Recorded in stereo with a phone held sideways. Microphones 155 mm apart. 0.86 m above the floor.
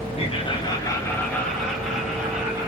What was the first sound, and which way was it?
Laughter, 40° left (ahead or behind).